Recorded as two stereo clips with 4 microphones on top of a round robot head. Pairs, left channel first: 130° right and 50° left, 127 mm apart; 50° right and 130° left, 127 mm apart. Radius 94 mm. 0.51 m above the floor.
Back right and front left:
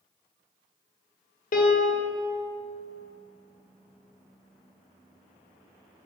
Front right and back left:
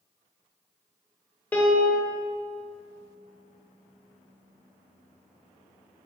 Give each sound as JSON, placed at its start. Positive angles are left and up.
{"t": 1.5, "sound": "a piano", "azimuth_deg": -130, "distance_m": 1.0}